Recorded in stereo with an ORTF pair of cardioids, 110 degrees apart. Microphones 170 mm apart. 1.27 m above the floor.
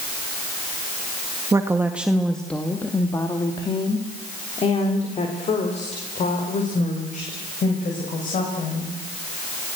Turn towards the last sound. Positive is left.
turn(degrees=50)